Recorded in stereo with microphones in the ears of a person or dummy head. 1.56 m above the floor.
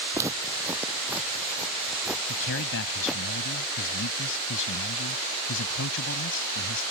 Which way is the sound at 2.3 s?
70° left (ahead or behind).